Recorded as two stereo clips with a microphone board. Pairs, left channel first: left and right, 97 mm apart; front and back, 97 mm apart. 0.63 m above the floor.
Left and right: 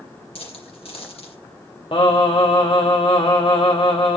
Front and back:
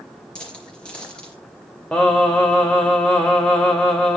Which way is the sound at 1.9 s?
75° left.